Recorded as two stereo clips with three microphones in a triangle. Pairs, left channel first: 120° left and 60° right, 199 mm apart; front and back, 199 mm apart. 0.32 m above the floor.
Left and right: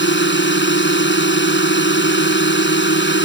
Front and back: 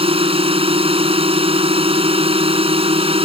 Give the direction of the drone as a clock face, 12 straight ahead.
8 o'clock.